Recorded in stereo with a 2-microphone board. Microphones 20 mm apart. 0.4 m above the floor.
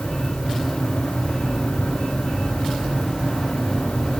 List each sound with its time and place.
Only background noise.